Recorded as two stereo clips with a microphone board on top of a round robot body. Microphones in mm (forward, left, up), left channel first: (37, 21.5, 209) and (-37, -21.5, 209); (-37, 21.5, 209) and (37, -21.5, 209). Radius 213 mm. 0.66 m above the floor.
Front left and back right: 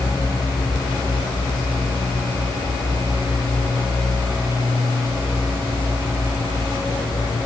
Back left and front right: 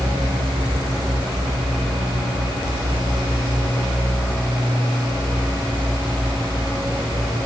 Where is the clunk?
No clunk in this recording.